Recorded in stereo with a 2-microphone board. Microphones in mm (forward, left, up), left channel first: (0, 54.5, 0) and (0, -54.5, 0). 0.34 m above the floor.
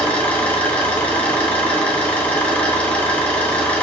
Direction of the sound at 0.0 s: 10° left (ahead or behind).